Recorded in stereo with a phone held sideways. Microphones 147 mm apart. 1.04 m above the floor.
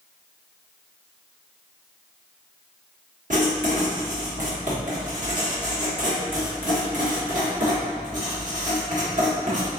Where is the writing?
60° right (ahead or behind), 1.1 m.